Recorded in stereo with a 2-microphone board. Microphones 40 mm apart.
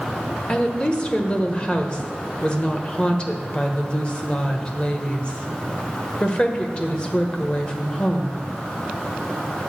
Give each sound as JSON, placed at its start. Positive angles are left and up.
{"t": 0.5, "sound": "a woman speaking", "side_deg": 25, "distance_m": 1.2}